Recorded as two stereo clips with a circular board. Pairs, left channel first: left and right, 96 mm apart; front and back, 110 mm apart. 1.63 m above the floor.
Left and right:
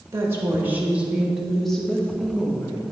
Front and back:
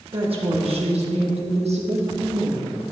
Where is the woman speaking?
150° right, 1.9 m; by 2.8 s 150° left, 1.7 m.